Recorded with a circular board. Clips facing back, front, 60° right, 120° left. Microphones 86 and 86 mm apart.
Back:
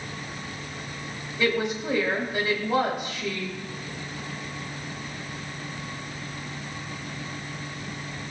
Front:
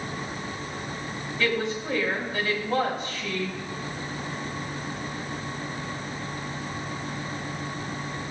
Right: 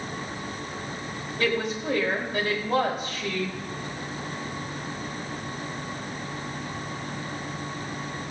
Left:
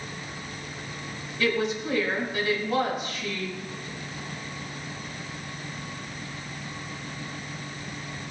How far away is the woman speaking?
About 4.5 m.